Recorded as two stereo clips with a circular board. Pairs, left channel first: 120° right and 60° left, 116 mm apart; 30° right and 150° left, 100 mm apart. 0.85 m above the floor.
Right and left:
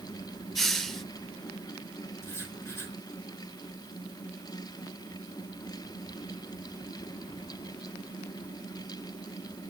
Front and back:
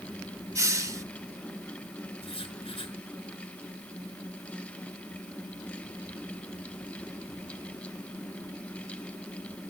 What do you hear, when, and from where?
0.6 s a hiss: 155° left, 0.6 m
2.2 s writing: 50° right, 4.5 m